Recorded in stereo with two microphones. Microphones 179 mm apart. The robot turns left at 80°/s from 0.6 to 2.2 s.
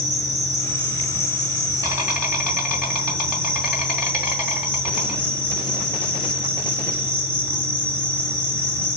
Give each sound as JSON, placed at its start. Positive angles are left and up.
{"t": 0.0, "sound": "an insect", "azimuth_deg": -55, "distance_m": 2.5}